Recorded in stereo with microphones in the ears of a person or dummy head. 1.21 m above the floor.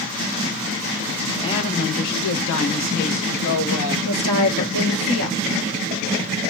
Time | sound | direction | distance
1.4 | a woman speaking | 25° left (ahead or behind) | 0.7 m
4.0 | a woman speaking | 80° left | 1.0 m